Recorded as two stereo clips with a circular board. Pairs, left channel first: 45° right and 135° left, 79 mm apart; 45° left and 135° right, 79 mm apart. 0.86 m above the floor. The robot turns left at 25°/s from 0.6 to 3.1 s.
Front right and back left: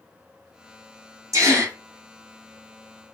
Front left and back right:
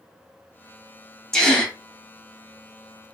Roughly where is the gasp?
Behind left.